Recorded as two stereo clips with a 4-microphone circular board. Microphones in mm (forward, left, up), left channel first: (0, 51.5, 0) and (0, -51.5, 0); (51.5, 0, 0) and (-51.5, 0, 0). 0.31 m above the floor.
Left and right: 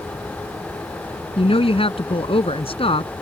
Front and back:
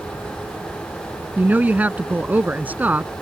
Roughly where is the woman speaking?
Left.